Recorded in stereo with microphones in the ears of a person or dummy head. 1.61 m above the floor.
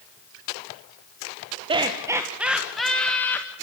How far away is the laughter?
About 1.0 m.